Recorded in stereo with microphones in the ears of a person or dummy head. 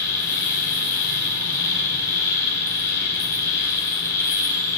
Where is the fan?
20° left (ahead or behind), 0.7 m.